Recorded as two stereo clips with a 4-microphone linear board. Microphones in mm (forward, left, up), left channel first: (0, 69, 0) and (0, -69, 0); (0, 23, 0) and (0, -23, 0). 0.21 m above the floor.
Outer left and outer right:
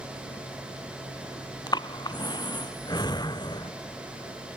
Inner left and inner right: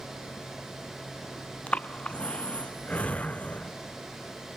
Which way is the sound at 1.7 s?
30° left (ahead or behind).